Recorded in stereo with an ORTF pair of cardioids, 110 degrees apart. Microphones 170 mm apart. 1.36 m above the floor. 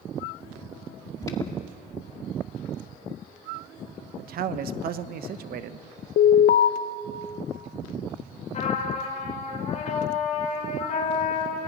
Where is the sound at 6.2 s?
55° left, 0.9 m.